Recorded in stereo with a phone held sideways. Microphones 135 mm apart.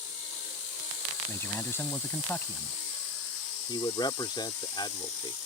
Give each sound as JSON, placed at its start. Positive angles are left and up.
{"t": 1.3, "sound": "a man speaking", "side_deg": 15}
{"t": 3.7, "sound": "a man speaking", "side_deg": 35}